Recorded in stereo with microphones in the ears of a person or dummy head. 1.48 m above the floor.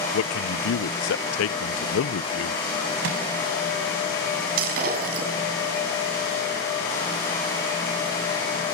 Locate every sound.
0.1 s a man speaking: 70° left (ahead or behind), 1.0 m
3.0 s a microwave: 80° right, 8.5 m
4.6 s breaking glass: 50° right (ahead or behind), 6.5 m